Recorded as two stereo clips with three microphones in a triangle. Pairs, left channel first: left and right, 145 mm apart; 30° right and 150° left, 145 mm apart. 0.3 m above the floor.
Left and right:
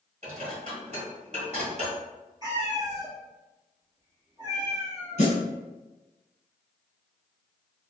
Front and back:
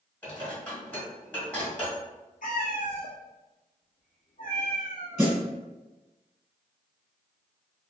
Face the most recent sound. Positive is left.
turn(degrees=75)